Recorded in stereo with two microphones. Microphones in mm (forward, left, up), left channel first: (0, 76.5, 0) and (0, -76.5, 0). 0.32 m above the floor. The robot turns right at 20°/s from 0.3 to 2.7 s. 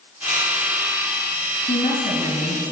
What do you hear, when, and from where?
1.7 s a woman speaking: 60° left (ahead or behind), 2.5 m